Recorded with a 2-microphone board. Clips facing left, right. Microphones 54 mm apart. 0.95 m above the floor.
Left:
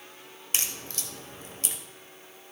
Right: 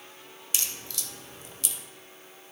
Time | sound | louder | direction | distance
0.5 | a crack | left 2 dB | 40° left (ahead or behind) | 1.0 m